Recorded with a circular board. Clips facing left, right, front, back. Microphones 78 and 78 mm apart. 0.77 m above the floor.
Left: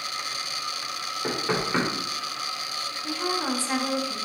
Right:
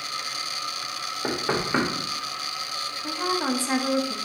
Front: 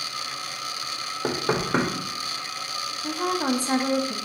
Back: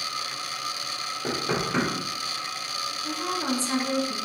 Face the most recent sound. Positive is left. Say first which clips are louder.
# right 2 dB, front 4 dB
turn(degrees=-20)